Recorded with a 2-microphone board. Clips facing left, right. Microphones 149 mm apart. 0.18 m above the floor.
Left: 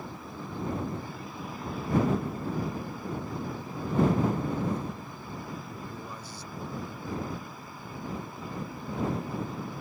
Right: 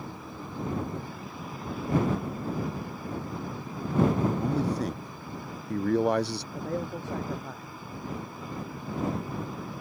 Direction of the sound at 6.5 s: 80° right.